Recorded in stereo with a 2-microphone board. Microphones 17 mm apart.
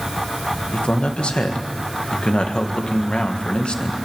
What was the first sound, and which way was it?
A man speaking, 65° left (ahead or behind).